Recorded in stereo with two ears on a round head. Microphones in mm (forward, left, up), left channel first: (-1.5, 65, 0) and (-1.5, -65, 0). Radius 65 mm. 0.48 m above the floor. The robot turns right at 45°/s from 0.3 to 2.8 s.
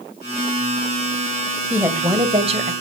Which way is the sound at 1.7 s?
170° right.